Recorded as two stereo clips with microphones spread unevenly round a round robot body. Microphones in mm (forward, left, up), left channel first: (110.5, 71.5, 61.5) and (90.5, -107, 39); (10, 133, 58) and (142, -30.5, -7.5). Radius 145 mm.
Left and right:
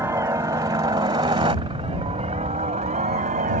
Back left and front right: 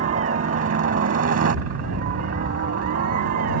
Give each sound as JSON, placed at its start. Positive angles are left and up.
{"t": 0.0, "sound": "a helicopter", "azimuth_deg": -25}